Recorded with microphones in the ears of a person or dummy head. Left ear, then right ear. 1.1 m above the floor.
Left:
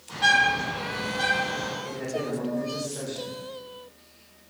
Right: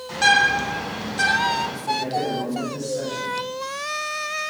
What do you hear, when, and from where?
0.1 s a bird: 80° right, 0.9 m
1.8 s a man speaking: 20° left (ahead or behind), 1.3 m